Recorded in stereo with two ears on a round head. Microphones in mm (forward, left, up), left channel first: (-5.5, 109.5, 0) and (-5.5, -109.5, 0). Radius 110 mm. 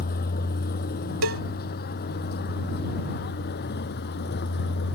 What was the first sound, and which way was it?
A vehicle, 40° left (ahead or behind).